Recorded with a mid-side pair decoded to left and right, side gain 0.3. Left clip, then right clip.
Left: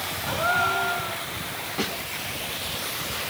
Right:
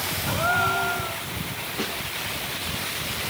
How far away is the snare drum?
About 6.5 m.